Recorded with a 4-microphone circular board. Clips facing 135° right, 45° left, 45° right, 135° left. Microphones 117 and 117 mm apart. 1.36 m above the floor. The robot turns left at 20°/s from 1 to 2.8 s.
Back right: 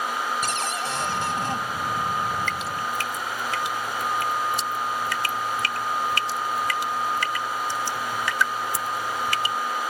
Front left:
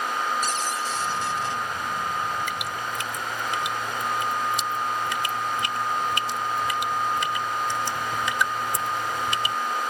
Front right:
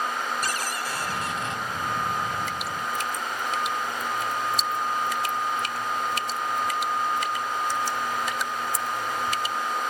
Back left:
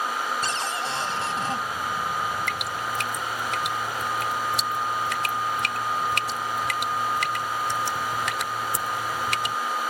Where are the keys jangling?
No keys jangling in this recording.